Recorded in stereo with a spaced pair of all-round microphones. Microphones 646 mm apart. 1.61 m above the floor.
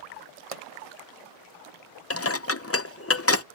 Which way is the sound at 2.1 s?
20° left (ahead or behind).